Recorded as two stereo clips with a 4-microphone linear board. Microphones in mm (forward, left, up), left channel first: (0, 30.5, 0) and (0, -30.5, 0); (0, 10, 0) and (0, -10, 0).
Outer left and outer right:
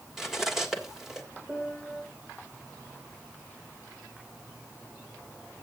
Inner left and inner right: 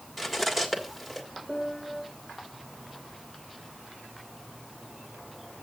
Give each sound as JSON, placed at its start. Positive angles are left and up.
{"t": 0.2, "sound": "cutlery clinking", "side_deg": -5, "distance_m": 1.5}
{"t": 1.5, "sound": "a piano", "side_deg": -20, "distance_m": 4.0}